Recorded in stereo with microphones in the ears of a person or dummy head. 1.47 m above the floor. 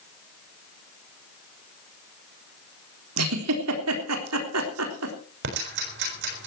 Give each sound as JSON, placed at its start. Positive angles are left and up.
{"t": 3.2, "sound": "a giggle", "side_deg": -85, "distance_m": 3.5}
{"t": 5.4, "sound": "ticking", "side_deg": -60, "distance_m": 6.5}